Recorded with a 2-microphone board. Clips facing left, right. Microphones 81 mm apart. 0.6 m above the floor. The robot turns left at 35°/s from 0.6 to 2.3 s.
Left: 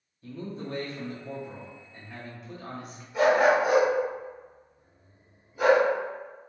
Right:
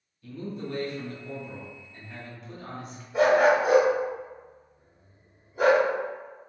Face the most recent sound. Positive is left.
turn(degrees=-35)  # may be behind; listen again after turning